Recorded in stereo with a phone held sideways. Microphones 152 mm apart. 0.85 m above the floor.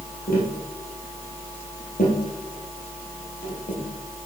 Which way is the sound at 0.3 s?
75° left (ahead or behind).